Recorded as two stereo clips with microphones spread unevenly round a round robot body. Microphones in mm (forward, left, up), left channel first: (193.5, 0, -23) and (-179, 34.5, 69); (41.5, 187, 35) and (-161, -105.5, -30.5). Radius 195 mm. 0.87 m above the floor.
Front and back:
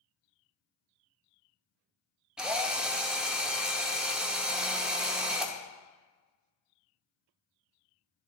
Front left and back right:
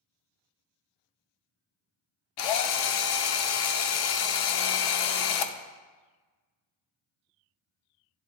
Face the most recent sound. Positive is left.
turn(degrees=80)